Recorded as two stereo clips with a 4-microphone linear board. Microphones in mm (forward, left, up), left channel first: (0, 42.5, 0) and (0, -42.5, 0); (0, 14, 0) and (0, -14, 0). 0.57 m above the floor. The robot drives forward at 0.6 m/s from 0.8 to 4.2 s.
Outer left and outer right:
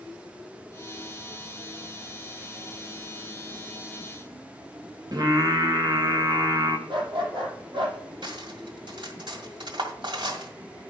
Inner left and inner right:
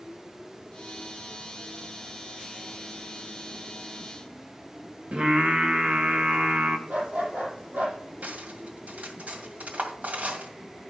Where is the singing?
55° right (ahead or behind), 1.5 m.